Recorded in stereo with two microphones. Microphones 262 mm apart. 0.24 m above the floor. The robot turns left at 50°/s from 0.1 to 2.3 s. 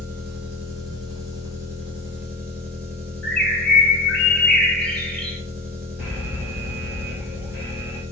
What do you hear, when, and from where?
0.0 s an engine running: 35° right, 1.1 m; by 8.1 s 145° right, 1.1 m
3.2 s a bird: 5° left (ahead or behind), 0.8 m
6.0 s an alarm: 5° right (ahead or behind), 1.6 m